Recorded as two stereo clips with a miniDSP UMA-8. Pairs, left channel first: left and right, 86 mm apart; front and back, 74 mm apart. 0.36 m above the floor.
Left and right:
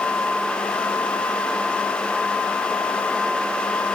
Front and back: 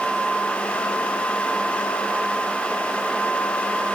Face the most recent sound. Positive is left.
No sound to turn to.